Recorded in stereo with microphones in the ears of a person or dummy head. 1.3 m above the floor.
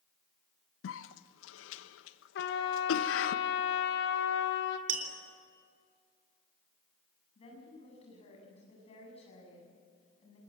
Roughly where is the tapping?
Right.